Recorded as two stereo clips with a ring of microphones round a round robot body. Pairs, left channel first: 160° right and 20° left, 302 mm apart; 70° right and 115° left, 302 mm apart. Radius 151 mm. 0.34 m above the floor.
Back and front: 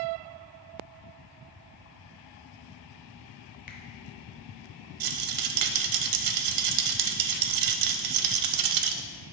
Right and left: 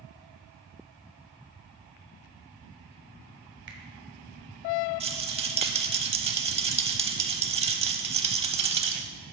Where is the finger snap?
150° left, 1.0 m.